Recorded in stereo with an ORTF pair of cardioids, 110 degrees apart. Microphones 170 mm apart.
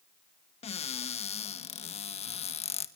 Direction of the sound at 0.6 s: 40° left.